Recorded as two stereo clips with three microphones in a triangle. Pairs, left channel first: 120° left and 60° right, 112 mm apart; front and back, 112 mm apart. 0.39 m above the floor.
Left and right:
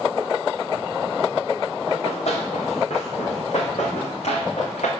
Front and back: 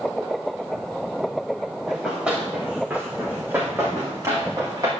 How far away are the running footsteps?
About 4 m.